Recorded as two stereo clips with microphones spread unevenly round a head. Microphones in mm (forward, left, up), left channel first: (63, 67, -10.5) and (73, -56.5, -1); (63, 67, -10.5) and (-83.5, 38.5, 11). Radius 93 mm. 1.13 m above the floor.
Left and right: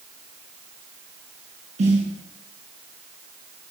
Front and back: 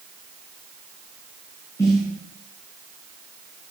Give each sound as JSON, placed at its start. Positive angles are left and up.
{"t": 1.8, "sound": "a snare drum", "azimuth_deg": -65, "distance_m": 7.0}